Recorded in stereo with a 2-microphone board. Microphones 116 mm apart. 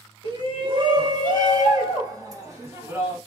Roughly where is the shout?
Right.